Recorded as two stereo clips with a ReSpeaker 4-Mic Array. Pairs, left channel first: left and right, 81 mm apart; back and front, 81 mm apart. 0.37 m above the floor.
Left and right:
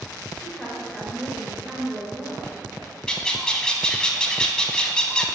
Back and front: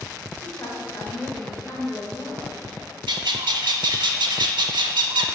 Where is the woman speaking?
170° left, 1.2 m.